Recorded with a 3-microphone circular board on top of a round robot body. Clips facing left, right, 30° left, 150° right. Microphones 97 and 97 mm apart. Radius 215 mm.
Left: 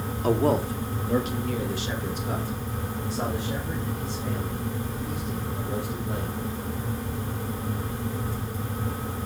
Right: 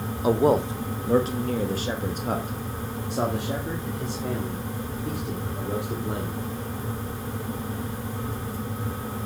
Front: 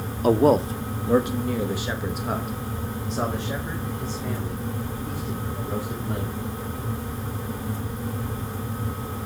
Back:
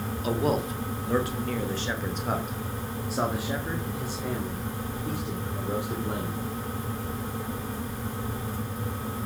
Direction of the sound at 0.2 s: 15° right.